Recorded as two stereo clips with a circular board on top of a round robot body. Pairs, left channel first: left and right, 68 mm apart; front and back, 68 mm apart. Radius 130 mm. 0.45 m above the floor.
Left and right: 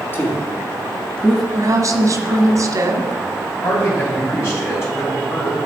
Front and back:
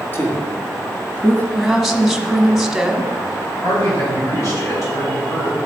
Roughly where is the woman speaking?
Right.